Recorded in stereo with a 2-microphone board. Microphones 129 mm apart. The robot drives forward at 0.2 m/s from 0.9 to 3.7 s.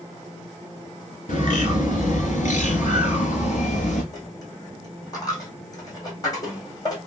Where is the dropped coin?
30° left (ahead or behind), 1.9 m.